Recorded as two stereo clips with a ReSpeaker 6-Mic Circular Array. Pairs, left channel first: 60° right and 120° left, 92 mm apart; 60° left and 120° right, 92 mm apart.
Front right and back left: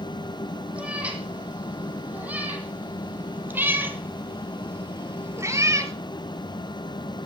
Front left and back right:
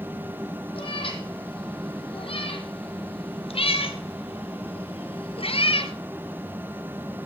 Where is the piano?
No piano in this recording.